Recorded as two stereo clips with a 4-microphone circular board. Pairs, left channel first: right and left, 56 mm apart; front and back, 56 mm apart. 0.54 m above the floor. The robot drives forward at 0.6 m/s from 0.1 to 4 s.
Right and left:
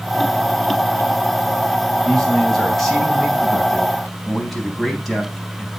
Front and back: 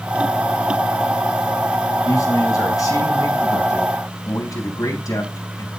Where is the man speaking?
Straight ahead, 5.5 m; by 5.7 s 5° right, 4 m.